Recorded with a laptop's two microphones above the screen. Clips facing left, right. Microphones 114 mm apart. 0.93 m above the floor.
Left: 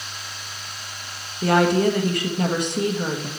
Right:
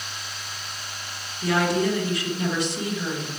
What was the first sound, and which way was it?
A woman speaking, 55° left (ahead or behind).